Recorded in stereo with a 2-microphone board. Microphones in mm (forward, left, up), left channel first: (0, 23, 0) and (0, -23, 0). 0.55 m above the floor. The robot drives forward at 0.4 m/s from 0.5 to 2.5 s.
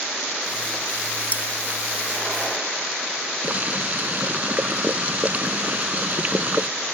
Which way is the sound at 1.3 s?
40° left (ahead or behind).